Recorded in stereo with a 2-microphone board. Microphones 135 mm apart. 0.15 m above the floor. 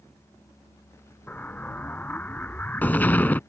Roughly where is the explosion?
Centre.